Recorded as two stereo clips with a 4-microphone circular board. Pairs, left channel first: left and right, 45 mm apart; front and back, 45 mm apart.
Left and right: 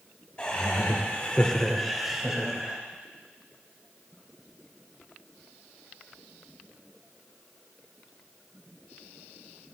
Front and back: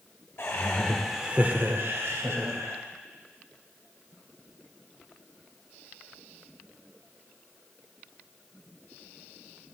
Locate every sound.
0.4 s laughter: 45° left, 1.5 m; by 2.8 s 170° right, 2.5 m